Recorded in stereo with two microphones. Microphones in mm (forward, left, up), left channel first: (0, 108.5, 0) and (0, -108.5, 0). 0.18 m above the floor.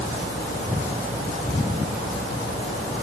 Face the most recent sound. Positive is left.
No sound to turn to.